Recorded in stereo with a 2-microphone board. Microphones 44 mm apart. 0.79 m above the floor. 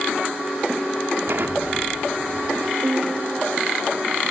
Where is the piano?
45° right (ahead or behind), 1.8 m.